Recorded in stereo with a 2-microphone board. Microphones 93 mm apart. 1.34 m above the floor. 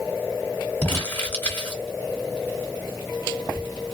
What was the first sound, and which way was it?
Crumpling, 20° left (ahead or behind).